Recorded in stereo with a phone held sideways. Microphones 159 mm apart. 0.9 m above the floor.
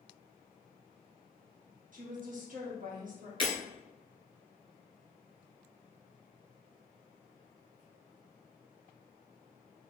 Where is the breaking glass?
35° left (ahead or behind), 1.4 m.